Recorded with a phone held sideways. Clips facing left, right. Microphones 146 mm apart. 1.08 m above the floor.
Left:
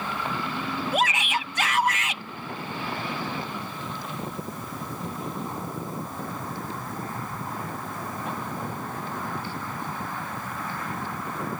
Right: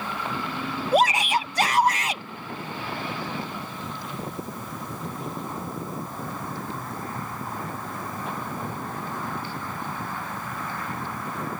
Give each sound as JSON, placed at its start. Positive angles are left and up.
{"t": 0.9, "sound": "a shout", "side_deg": -35}